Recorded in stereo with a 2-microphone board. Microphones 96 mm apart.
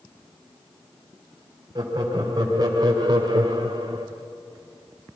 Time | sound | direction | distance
1.8 | laughter | 45° right (ahead or behind) | 3.5 m